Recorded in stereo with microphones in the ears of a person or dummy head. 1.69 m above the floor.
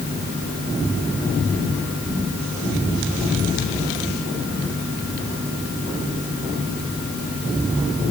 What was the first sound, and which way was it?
Only background noise.